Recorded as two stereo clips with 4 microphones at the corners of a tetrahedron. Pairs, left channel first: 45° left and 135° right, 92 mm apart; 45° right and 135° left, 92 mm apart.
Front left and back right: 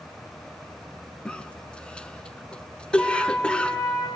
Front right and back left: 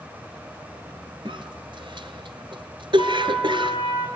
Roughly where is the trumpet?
Ahead right.